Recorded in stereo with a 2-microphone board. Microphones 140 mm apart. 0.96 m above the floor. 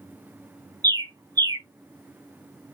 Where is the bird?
25° right (ahead or behind), 0.5 m.